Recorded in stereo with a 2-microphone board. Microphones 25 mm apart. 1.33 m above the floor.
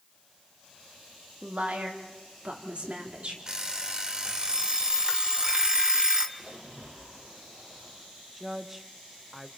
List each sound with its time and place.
1.4 s a woman speaking: 55° right (ahead or behind), 3.5 m; by 3.4 s 50° right (ahead or behind), 4 m
3.5 s an alarm clock: 25° right (ahead or behind), 1.8 m
6.4 s a splash: 65° right (ahead or behind), 5.5 m
8.4 s a woman speaking: 10° right (ahead or behind), 1.3 m